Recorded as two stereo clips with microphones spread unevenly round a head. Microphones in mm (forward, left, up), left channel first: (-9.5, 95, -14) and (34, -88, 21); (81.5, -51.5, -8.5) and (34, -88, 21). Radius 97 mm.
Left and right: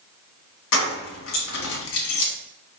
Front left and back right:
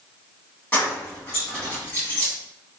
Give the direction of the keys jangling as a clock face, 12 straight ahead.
8 o'clock.